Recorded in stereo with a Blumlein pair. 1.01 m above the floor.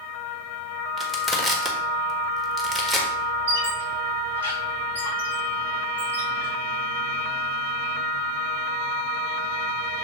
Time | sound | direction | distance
1.0 | crushing | 5° right | 1.4 m
3.5 | a squeak | 55° right | 3.5 m